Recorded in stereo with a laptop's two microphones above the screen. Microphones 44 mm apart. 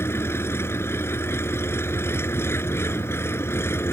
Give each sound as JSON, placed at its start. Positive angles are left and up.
{"t": 0.0, "sound": "an engine running", "side_deg": 75}